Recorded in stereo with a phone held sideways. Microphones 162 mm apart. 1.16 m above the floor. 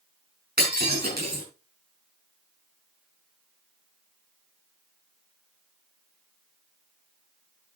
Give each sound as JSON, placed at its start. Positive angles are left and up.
{"t": 0.6, "sound": "breaking glass", "side_deg": -75, "distance_m": 6.0}